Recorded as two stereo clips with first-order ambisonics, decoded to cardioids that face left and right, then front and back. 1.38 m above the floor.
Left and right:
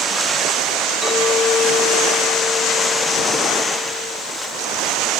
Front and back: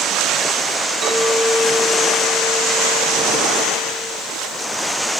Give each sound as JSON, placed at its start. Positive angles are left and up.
{"t": 1.0, "sound": "a clink", "azimuth_deg": -140, "distance_m": 6.0}